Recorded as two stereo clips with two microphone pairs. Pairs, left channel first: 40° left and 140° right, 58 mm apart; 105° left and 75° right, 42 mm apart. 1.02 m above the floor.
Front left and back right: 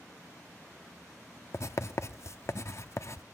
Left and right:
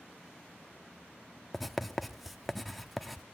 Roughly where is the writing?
Ahead.